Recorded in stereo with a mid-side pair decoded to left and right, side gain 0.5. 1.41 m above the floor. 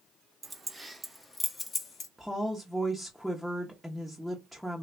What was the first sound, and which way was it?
Keys jangling, 25° right.